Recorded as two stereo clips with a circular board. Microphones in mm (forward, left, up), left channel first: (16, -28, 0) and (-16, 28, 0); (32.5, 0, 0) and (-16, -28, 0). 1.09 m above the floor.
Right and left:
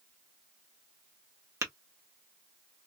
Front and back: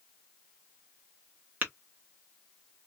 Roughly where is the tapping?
Behind left.